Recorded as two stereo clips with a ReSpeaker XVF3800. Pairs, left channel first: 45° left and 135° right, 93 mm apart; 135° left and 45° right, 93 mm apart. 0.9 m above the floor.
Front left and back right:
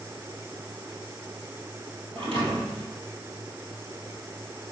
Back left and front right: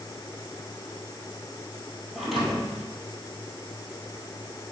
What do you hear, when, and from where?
2.1 s a thud: 135° right, 2.5 m